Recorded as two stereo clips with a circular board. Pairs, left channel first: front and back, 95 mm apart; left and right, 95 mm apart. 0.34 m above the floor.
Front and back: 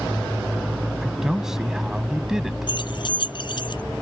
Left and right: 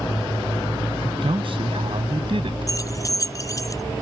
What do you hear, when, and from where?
1.0 s a man speaking: 95° right
2.7 s keys jangling: 35° left